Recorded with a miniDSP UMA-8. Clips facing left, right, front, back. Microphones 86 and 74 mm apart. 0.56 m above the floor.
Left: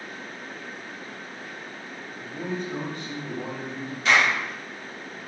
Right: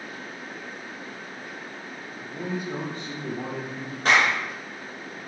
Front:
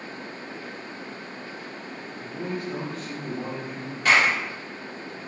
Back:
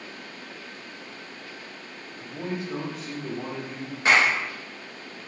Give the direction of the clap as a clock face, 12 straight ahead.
4 o'clock.